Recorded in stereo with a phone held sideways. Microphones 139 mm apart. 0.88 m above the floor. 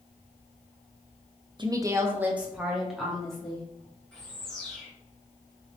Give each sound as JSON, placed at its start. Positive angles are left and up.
{"t": 1.6, "sound": "a woman speaking", "side_deg": -35, "distance_m": 0.6}
{"t": 4.1, "sound": "a bird", "side_deg": 5, "distance_m": 1.9}